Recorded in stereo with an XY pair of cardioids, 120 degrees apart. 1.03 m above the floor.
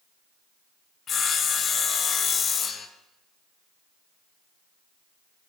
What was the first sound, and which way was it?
Sawing, 45° left.